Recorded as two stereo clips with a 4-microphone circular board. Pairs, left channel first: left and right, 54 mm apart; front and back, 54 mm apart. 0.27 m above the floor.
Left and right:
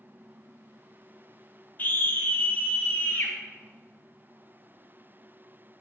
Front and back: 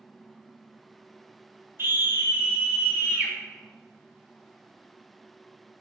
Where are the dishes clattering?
No dishes clattering in this recording.